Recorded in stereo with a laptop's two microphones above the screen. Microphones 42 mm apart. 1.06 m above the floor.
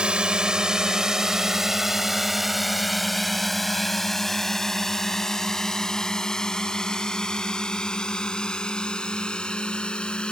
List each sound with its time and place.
0.0 s a drone: 25° right (ahead or behind); by 10.3 s 20° left (ahead or behind)